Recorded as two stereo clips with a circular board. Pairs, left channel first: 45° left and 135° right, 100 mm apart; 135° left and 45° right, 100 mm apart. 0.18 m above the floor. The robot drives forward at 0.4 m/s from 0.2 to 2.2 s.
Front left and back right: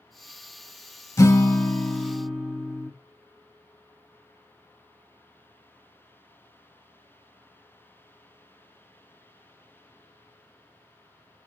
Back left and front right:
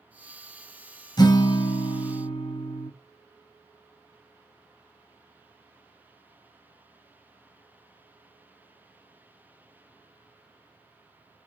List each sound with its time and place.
1.2 s a guitar: 100° left, 0.6 m; by 2.9 s 135° left, 0.7 m